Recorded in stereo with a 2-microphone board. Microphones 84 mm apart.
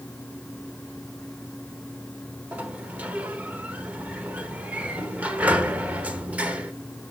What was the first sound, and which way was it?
A sliding door, 20° right (ahead or behind).